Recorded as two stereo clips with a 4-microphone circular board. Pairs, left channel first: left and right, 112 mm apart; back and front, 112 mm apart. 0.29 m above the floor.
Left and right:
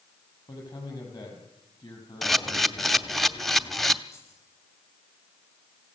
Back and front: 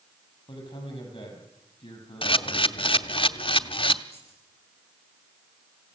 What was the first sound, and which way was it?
A man speaking, 135° left.